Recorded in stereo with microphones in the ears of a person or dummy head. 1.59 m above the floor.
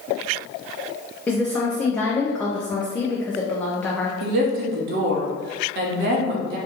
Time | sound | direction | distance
1.3 | a woman speaking | 15° left (ahead or behind) | 0.6 m
4.2 | a woman speaking | 50° right (ahead or behind) | 0.8 m